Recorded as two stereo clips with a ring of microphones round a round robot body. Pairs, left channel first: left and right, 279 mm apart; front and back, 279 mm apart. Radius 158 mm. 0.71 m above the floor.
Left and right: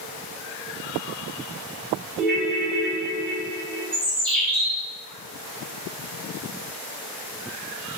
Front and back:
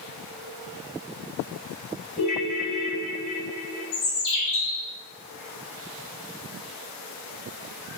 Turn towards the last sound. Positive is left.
turn(degrees=5)